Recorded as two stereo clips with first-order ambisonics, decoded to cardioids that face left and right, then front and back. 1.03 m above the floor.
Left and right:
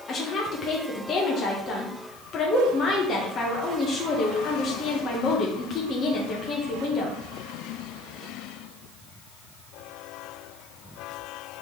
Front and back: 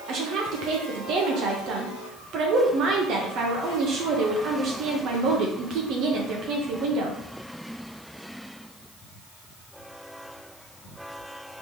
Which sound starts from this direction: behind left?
A woman speaking, at 0.1 s.